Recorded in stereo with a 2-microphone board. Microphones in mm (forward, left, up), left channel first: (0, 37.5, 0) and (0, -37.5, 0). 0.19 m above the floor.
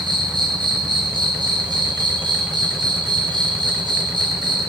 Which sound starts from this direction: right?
An insect, at 0.0 s.